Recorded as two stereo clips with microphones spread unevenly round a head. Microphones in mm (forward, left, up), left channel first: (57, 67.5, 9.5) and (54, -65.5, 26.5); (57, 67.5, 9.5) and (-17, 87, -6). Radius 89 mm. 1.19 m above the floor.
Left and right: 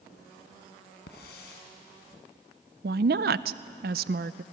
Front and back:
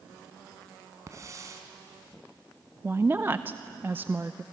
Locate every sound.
1.1 s a hiss: 115° left, 3.5 m
2.8 s a woman speaking: 120° right, 0.5 m